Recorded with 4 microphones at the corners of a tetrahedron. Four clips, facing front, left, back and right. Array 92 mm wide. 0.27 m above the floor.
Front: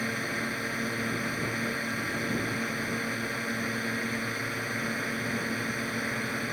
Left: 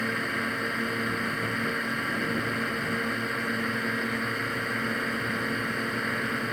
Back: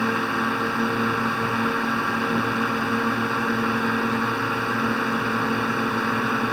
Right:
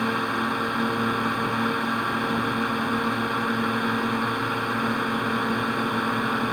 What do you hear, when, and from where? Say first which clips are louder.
0.0 s a drone: right 4 dB, back 9 dB; 150° right